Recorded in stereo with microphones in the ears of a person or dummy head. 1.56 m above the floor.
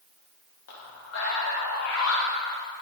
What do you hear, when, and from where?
0.7 s a man speaking: 80° left, 3 m; by 2.6 s 65° left (ahead or behind), 1.1 m